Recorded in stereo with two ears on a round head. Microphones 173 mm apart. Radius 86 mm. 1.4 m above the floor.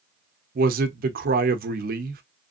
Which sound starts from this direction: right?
A man speaking, at 0.6 s.